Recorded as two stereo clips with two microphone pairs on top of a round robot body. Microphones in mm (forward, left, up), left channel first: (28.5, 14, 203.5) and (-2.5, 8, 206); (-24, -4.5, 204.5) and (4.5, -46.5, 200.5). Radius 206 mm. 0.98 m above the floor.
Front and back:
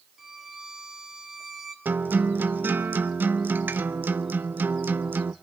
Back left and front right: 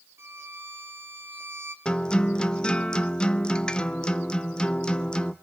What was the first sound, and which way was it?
A violin, 90° right.